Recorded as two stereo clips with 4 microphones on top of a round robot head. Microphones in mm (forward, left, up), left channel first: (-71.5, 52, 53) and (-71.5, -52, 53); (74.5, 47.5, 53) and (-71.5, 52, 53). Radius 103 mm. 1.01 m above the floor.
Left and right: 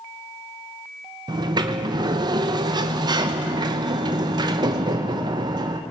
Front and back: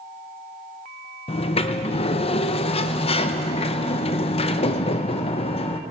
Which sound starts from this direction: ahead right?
A sliding door, at 1.3 s.